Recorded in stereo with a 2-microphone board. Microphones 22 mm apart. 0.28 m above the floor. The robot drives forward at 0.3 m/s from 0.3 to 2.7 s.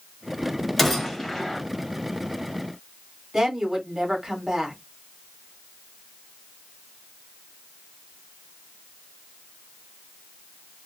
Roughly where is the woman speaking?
Right.